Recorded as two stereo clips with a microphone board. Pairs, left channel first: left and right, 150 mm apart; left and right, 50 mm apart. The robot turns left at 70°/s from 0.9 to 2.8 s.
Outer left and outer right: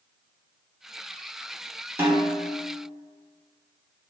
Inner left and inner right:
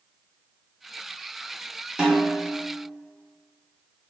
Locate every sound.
2.0 s a snare drum: 165° right, 1.0 m; by 2.5 s 155° left, 1.0 m